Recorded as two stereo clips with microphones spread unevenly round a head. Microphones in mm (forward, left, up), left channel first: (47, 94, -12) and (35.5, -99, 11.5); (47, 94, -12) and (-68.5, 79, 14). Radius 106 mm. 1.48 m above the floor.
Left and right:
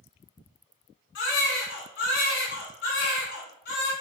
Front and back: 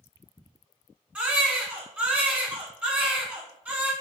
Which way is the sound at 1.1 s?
125° left.